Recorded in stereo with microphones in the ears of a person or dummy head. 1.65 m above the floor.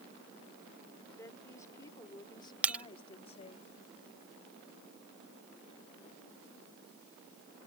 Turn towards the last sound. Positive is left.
turn(degrees=-10)  # may be behind; listen again after turning